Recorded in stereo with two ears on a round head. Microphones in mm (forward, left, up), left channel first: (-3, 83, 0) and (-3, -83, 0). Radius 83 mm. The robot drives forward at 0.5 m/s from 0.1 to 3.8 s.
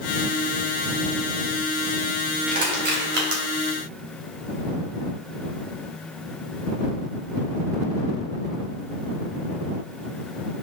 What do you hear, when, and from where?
2.5 s crushing: 55° right (ahead or behind), 3 m; by 3.4 s 60° right (ahead or behind), 3 m